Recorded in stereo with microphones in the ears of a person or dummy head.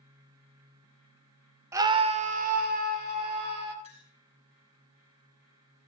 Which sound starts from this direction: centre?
A scream, at 1.7 s.